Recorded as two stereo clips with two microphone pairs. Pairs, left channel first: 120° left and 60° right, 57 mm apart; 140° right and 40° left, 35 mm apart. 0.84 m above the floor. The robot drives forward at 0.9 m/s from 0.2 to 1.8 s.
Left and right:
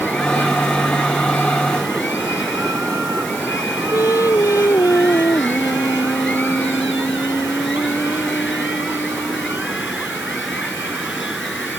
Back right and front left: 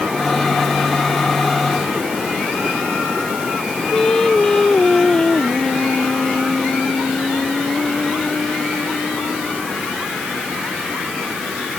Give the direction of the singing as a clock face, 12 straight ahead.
7 o'clock.